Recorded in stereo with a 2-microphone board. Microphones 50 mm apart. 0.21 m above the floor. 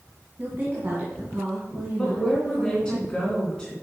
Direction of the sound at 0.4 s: 35° right (ahead or behind).